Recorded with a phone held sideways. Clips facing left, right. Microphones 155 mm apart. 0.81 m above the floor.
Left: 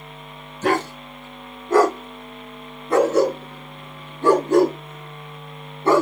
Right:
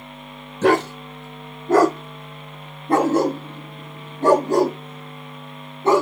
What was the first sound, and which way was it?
A dog barking, 80° right.